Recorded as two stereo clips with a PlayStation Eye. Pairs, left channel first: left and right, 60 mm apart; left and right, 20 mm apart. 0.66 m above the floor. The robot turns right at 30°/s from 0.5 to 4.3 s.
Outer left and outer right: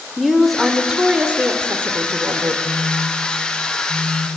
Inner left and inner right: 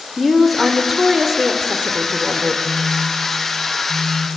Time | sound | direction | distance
0.2 | a woman speaking | straight behind | 2.5 m
2.6 | a phone buzzing | 50° left | 6 m